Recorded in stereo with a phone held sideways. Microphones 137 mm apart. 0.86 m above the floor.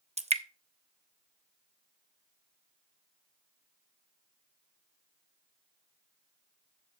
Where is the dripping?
55° right (ahead or behind), 0.8 m.